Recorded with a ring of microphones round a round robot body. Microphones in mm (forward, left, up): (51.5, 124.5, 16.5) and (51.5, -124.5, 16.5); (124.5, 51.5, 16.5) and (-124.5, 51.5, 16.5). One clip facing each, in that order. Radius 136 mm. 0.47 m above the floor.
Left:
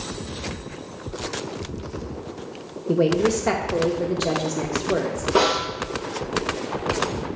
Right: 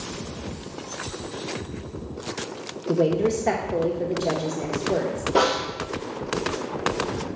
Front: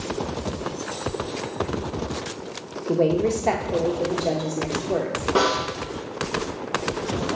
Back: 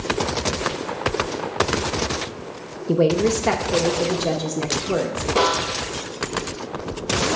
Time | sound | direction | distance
2.9 | a woman speaking | 150° left | 0.7 m
5.3 | a snare drum | 10° left | 3 m